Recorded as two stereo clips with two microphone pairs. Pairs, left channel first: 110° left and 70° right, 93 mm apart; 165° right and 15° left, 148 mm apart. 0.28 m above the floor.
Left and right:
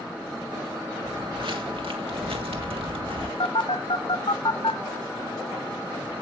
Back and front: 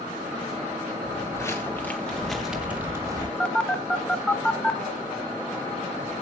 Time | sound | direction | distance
1.0 | footsteps | 100° right | 1.9 m
3.4 | a phone buzzing | 110° left | 0.8 m